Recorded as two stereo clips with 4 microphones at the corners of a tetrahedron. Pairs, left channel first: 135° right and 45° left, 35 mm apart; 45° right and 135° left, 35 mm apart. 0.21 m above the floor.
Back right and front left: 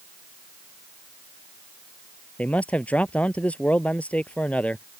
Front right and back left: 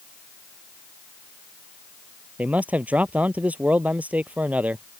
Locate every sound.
2.4 s a man speaking: 175° left